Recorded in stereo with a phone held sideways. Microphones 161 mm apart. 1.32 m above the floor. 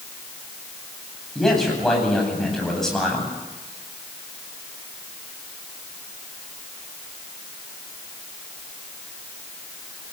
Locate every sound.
1.4 s a man speaking: 5° left (ahead or behind), 9 m